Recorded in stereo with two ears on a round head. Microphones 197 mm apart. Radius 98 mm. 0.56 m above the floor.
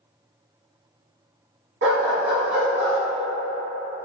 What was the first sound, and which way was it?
A dog barking, 60° right (ahead or behind).